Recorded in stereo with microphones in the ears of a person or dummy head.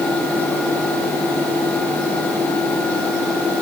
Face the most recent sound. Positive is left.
No sound to turn to.